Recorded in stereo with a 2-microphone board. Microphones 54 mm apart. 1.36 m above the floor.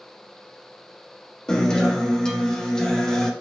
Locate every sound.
1.5 s a guitar: 10° left (ahead or behind), 0.7 m